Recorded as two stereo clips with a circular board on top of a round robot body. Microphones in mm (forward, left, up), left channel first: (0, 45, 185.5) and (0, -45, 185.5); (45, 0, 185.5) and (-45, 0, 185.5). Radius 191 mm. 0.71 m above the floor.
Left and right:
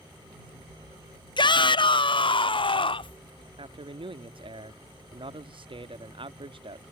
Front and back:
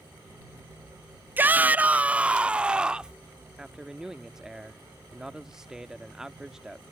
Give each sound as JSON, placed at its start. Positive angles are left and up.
{"t": 1.4, "sound": "a shout", "azimuth_deg": 110}
{"t": 3.6, "sound": "a man speaking", "azimuth_deg": -95}